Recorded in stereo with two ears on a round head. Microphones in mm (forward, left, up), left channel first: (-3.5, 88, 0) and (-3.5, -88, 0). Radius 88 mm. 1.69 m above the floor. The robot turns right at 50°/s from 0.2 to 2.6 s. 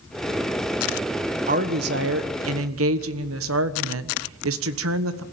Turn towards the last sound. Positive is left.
turn(degrees=-80)